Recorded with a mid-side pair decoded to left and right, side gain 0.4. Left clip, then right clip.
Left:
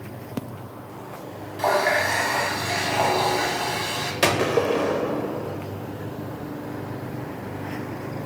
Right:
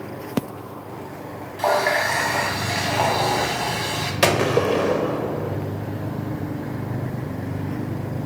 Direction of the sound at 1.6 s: Straight ahead.